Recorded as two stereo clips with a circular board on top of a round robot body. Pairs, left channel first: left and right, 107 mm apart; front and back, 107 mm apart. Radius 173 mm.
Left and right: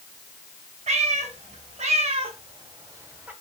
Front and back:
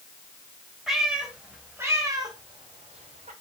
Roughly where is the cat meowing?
Right.